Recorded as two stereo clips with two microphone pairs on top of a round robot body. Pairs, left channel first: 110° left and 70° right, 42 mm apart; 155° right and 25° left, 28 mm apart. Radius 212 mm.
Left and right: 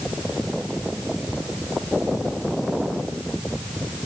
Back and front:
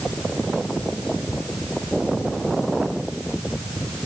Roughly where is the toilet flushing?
No toilet flushing in this recording.